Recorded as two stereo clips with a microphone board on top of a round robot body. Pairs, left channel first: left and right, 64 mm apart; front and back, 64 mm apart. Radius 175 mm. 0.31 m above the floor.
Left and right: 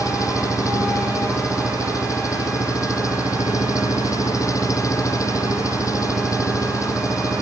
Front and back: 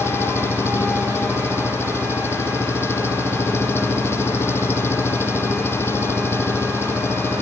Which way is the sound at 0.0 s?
55° left.